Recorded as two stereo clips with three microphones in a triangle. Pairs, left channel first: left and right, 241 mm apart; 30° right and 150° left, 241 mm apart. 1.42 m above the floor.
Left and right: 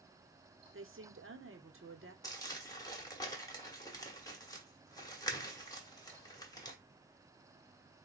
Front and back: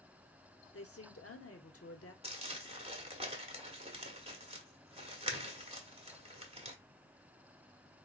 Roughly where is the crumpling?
Behind left.